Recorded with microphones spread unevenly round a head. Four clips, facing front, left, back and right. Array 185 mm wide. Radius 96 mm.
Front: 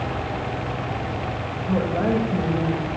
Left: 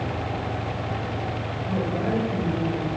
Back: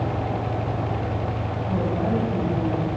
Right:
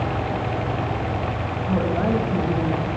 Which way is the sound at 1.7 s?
15° right.